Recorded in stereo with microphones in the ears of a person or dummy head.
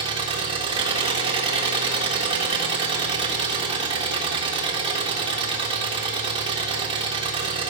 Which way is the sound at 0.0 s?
30° right (ahead or behind).